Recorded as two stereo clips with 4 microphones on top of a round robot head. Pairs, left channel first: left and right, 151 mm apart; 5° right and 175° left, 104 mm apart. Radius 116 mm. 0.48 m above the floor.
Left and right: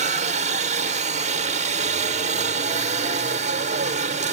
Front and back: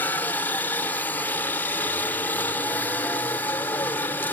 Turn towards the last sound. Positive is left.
turn(degrees=-75)